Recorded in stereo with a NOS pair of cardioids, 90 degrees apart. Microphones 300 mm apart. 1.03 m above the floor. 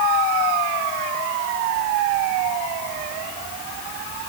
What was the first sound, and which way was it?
Only background noise.